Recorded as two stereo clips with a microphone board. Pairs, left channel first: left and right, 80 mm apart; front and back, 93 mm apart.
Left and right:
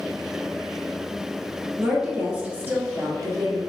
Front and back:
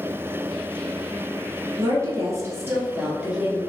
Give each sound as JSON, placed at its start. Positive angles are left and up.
{"t": 1.8, "sound": "a woman speaking", "azimuth_deg": -170, "distance_m": 1.3}